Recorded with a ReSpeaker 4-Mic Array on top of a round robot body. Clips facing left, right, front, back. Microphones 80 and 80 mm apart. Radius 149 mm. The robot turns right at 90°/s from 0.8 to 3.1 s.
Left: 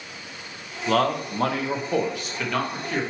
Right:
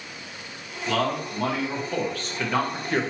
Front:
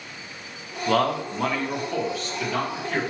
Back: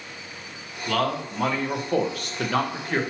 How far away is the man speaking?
About 1.1 m.